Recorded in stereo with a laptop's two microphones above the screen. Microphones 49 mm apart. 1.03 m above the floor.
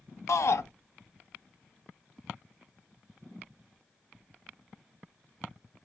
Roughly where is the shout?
Left.